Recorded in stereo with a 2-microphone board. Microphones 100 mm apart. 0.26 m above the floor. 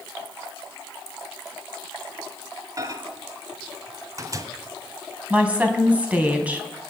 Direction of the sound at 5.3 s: 15° right (ahead or behind).